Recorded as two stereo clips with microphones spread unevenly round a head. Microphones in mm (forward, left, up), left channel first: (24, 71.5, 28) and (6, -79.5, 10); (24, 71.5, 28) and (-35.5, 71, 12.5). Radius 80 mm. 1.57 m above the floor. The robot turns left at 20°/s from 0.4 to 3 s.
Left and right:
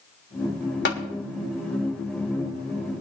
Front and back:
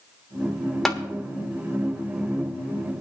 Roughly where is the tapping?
Left.